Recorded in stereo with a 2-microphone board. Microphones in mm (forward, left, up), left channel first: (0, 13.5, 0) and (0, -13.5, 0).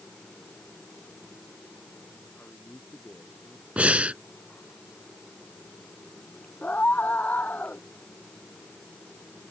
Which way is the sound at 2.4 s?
85° left.